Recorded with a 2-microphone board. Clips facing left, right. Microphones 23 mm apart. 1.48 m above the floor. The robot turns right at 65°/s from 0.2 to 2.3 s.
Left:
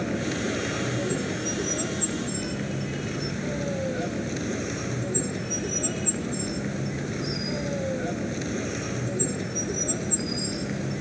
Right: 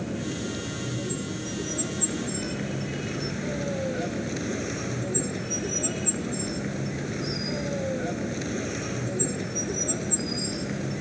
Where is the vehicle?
40° left; by 11.0 s 175° left.